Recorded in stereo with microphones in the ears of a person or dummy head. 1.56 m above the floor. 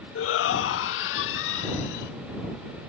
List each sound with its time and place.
0.1 s a shout: 75° left (ahead or behind); by 2.1 s 70° left (ahead or behind)